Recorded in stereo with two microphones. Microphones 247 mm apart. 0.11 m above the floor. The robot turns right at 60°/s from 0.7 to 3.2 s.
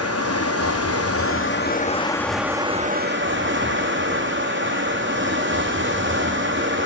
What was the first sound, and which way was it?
Running water, 80° left.